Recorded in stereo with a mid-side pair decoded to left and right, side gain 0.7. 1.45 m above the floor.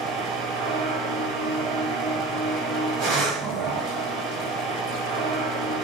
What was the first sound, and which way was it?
A machine running, 65° right.